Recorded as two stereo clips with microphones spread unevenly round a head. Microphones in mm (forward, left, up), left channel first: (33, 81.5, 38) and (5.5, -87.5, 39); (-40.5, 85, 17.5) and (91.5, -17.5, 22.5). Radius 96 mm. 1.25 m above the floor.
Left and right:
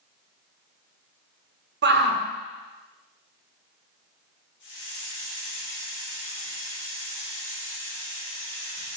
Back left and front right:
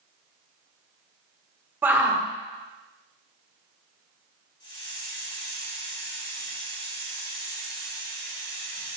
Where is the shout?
120° right, 1.4 m.